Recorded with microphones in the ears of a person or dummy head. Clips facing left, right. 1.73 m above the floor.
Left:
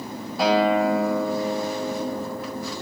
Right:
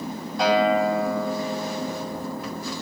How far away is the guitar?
About 7 m.